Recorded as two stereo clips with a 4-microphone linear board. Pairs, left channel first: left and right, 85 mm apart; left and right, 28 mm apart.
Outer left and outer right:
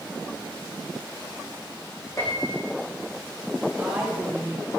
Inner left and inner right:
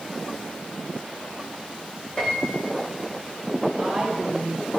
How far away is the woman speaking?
About 3.5 m.